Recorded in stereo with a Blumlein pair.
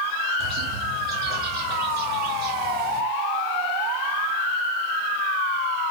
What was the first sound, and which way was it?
A bird, 25° right.